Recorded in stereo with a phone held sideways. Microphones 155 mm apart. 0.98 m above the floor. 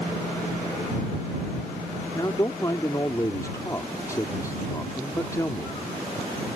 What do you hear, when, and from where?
2.1 s a man speaking: 20° left (ahead or behind)